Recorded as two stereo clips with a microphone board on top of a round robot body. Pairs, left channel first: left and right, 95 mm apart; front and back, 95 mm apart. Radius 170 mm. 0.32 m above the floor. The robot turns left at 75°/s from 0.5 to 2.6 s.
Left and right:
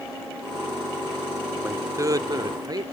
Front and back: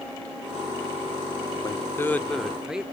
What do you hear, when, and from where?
1.6 s a man speaking: 25° right; by 2.8 s 100° right